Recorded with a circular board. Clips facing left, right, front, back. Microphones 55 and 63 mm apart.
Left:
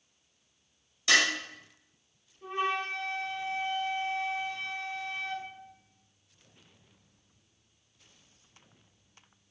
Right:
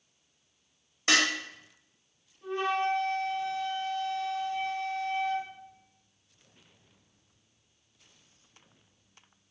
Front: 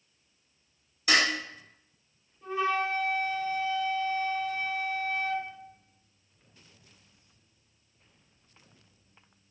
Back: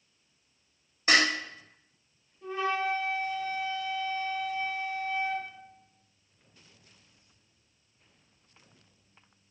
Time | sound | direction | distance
1.1 | dishes clattering | 135° right | 0.9 m
2.4 | a flute | 75° left | 1.3 m